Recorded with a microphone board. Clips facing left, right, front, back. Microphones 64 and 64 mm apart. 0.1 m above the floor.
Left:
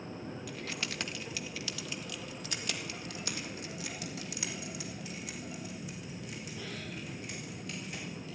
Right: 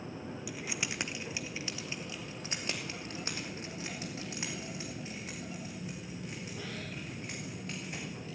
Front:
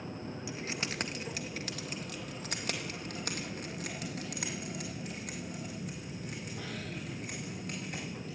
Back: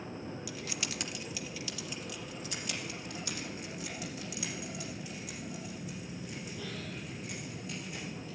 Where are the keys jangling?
20° right, 0.8 m; by 8.3 s 35° right, 6.5 m.